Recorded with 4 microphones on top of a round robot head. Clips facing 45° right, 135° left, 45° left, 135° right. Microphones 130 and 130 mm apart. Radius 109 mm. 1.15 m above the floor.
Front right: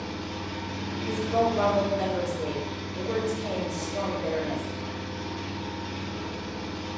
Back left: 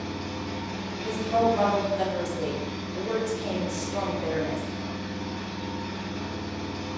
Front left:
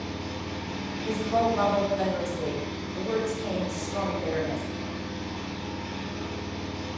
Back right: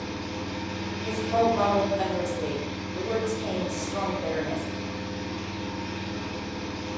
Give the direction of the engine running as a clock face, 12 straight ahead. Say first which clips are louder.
Back left 1 dB, back right 1 dB; 9 o'clock.